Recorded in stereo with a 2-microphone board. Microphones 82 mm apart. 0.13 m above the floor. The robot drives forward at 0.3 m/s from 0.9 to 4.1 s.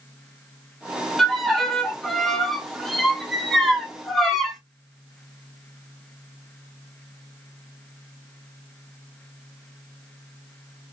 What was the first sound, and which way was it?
A violin, 5° left (ahead or behind).